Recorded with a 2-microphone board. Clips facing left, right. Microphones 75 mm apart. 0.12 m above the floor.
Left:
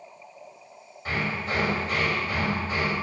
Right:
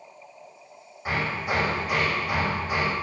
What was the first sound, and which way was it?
Hammering, 15° right (ahead or behind).